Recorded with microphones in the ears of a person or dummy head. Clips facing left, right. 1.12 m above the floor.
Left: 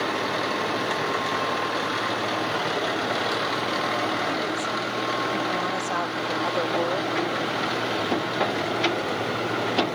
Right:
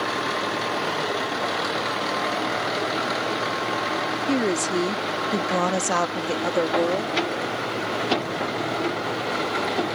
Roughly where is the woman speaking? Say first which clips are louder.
Right 5 dB; right.